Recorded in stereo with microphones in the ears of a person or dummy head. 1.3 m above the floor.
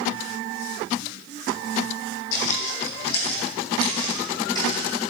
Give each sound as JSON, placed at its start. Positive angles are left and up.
{"t": 2.3, "sound": "footsteps", "side_deg": 50, "distance_m": 3.0}